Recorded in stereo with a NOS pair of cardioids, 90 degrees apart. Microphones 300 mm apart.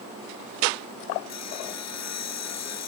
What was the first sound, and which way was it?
Sawing, 60° left.